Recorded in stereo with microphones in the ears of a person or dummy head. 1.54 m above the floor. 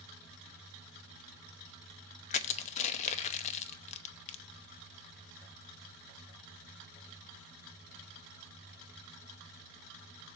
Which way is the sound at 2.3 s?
35° left (ahead or behind).